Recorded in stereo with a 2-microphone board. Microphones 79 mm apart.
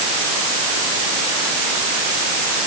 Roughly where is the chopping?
I don't hear chopping.